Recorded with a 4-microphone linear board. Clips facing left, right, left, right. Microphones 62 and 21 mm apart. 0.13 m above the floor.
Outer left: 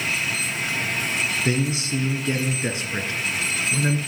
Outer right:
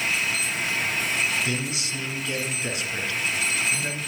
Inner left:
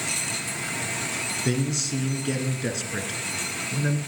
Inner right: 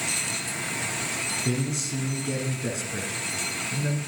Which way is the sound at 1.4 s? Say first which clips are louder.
Outer left 5 dB, inner left 2 dB; 35° left (ahead or behind).